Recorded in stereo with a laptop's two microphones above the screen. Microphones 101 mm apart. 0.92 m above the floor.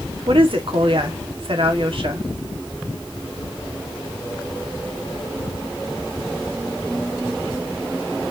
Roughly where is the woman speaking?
Right.